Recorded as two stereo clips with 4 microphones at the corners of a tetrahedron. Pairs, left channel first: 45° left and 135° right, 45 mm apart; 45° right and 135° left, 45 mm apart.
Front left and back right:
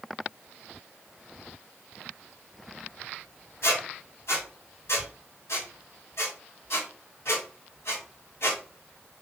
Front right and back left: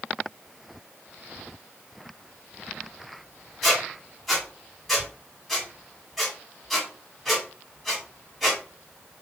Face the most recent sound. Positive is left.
turn(degrees=40)